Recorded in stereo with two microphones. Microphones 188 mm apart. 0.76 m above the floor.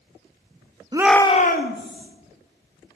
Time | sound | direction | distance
0.9 | a shout | 25° right (ahead or behind) | 0.7 m